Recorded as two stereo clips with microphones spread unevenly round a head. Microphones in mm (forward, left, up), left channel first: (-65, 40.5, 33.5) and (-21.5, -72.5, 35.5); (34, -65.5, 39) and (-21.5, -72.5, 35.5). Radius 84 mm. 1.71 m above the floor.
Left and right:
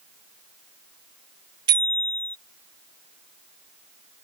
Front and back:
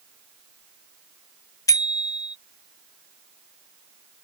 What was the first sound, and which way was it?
A bicycle bell, 5° right.